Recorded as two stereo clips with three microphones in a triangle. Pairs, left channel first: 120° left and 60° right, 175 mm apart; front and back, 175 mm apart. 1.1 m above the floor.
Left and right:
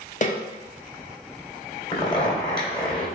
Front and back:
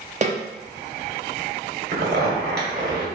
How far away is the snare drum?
About 0.7 m.